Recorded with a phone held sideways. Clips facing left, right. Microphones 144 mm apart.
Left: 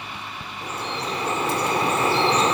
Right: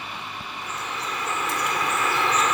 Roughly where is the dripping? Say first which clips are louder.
Left 4 dB; left.